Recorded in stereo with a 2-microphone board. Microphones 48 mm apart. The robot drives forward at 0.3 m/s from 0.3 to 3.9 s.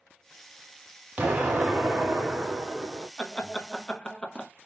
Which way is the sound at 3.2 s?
20° left (ahead or behind).